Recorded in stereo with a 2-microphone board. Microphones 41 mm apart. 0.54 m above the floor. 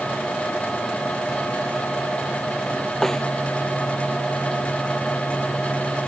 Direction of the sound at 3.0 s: 10° left (ahead or behind).